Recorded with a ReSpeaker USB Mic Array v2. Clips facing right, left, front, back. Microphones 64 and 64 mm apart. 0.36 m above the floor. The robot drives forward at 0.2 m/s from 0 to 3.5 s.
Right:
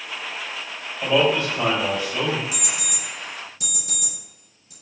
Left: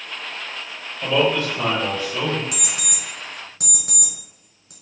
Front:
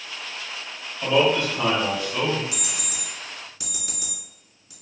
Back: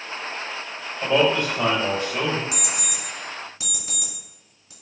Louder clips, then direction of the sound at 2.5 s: Even, back 3 dB; 110° left.